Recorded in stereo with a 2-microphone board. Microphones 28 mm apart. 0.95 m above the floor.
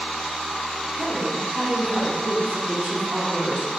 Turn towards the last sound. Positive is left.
turn(degrees=-75)  # may be behind; listen again after turning